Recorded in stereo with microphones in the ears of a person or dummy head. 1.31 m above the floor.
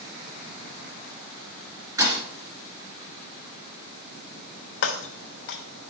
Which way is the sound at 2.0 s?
20° right (ahead or behind).